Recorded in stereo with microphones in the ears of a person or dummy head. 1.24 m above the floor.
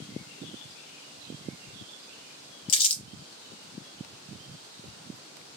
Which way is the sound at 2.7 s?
35° left (ahead or behind).